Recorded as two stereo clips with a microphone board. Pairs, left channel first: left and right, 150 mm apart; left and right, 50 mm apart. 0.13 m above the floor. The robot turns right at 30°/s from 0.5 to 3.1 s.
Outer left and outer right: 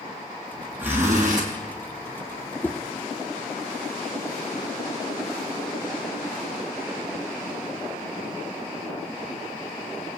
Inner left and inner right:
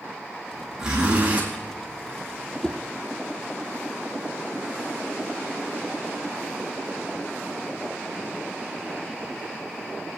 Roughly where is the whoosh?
Centre.